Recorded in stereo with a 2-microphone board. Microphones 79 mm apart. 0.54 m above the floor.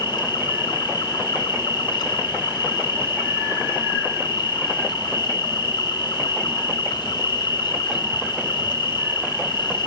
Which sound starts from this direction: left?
An insect, at 0.0 s.